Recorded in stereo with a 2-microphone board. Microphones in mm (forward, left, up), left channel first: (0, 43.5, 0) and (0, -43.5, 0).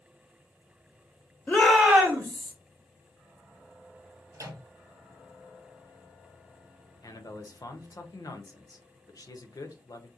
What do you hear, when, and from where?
1.5 s a shout: 20° left (ahead or behind), 1.0 m; by 2.5 s 55° right (ahead or behind), 1.2 m
4.3 s a microwave: 45° right (ahead or behind), 0.6 m
7.0 s a man speaking: 50° left (ahead or behind), 0.6 m